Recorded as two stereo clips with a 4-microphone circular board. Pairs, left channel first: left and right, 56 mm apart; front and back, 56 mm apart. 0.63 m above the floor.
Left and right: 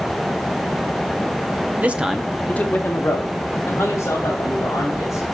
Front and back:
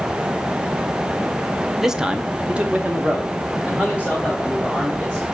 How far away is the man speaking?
About 0.7 m.